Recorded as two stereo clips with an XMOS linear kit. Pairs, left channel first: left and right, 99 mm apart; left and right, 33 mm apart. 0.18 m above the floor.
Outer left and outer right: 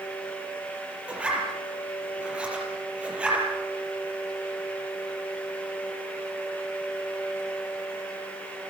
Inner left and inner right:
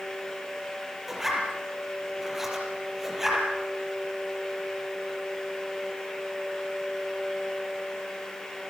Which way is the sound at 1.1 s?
10° right (ahead or behind).